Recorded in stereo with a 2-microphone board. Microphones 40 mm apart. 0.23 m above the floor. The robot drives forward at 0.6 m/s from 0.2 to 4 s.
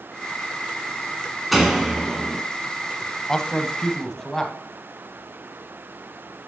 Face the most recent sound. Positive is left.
turn(degrees=15)  # may be behind; listen again after turning